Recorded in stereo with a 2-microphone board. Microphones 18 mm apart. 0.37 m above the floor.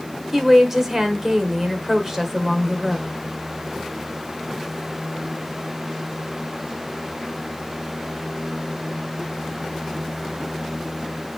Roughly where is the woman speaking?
Right.